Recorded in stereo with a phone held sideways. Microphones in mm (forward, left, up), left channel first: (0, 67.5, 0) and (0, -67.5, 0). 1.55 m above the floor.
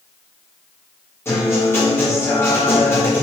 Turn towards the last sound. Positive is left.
turn(degrees=20)  # may be behind; listen again after turning